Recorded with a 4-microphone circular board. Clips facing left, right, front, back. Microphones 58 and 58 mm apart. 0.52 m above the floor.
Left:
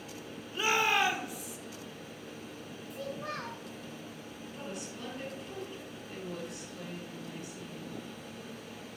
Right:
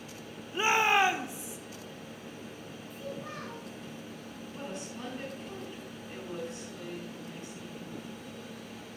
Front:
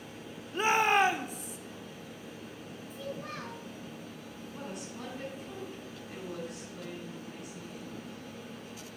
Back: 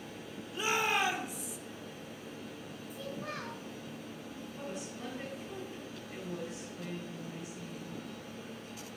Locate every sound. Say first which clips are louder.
0.5 s a shout: right 3 dB, front 6 dB; 30° right, 1.1 m
2.9 s a child speaking: left 2 dB, front 1 dB; 95° left, 2.5 m
4.5 s a woman speaking: right 2 dB, front 1 dB; 30° right, 6 m